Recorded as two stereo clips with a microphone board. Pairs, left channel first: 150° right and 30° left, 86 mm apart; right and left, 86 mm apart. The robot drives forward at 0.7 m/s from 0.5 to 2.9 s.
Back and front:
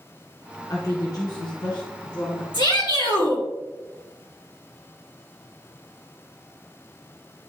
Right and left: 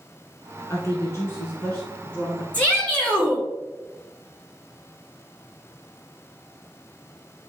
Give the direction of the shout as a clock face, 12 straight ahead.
5 o'clock.